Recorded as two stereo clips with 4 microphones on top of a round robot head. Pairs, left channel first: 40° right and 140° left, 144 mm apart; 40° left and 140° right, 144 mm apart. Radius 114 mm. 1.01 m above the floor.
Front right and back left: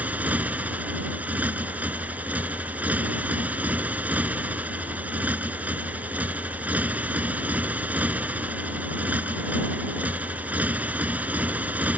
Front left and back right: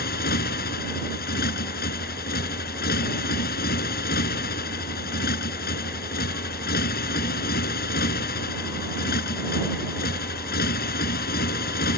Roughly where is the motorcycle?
Ahead left.